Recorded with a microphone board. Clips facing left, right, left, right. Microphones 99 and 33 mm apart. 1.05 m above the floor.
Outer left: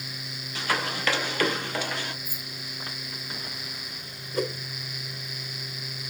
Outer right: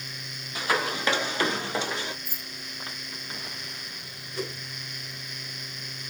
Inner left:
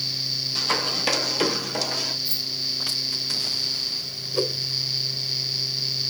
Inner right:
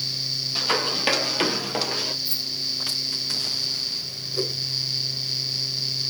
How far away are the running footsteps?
About 1.6 m.